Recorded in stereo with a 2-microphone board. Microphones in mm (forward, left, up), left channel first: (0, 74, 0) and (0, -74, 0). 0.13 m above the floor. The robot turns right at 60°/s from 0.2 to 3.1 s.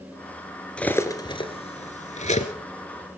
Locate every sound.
0.8 s cutlery clinking: 5° left (ahead or behind), 1.2 m; by 2.5 s 45° left (ahead or behind), 1.2 m